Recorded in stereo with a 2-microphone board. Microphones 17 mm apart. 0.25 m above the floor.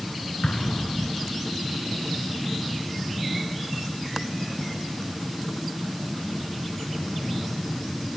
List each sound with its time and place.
0.4 s an explosion: 70° left (ahead or behind), 1.1 m